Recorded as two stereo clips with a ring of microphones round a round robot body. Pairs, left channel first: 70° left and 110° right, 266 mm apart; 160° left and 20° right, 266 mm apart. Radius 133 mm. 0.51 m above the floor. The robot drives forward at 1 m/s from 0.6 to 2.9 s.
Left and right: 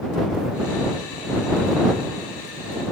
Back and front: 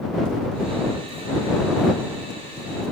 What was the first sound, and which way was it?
Only background noise.